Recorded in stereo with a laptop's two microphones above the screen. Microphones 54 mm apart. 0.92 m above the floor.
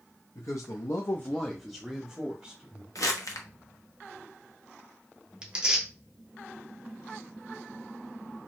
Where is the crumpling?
85° left, 0.7 m.